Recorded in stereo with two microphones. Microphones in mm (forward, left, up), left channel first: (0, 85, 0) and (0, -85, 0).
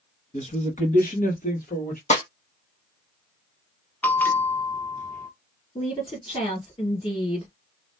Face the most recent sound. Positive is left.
turn(degrees=30)  # may be behind; listen again after turning